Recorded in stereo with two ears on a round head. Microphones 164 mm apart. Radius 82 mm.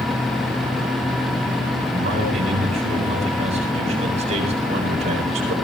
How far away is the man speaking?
About 8 m.